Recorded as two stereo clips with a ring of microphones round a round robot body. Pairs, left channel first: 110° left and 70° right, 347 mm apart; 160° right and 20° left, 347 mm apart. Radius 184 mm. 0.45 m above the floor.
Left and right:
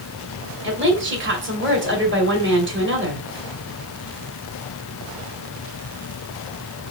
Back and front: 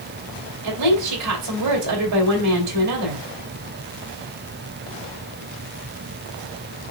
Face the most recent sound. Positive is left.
turn(degrees=-15)